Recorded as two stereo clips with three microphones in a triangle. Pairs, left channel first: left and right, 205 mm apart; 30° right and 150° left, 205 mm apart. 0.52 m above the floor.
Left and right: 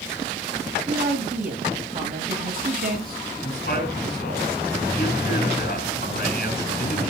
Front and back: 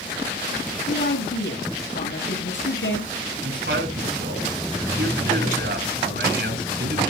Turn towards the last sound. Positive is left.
turn(degrees=130)